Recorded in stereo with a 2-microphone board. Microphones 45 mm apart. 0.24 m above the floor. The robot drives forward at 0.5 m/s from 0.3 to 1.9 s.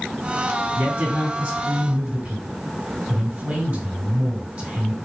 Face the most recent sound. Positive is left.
turn(degrees=-40)  # may be behind; listen again after turning